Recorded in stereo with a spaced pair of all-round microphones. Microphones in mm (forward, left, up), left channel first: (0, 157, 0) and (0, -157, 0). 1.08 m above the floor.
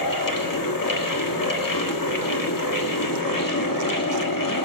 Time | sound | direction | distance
0.0 | a fan | 70° left (ahead or behind) | 1.4 m